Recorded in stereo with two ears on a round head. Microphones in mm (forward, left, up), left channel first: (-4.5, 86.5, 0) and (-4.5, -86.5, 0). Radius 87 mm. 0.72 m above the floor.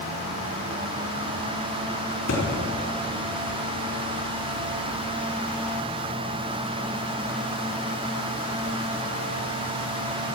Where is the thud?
90° left, 4.5 m.